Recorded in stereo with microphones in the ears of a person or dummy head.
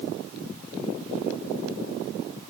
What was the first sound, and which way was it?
Only background noise.